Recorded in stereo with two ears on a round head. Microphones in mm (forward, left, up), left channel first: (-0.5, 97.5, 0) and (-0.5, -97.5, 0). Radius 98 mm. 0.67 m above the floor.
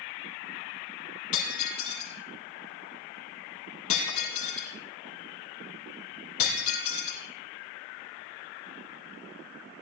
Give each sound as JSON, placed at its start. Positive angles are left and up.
{"t": 1.3, "sound": "breaking glass", "side_deg": 70, "distance_m": 4.5}